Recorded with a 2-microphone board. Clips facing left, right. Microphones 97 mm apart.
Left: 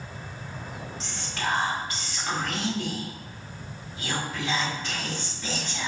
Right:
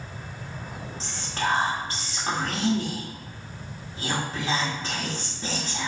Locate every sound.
1.0 s whispering: 35° right (ahead or behind), 1.0 m